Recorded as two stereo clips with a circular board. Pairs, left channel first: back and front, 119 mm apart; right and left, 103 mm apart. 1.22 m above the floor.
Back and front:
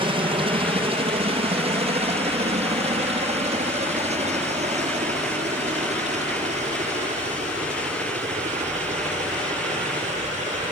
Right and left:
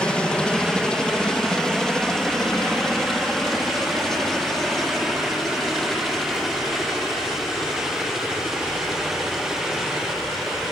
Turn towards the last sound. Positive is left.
turn(degrees=0)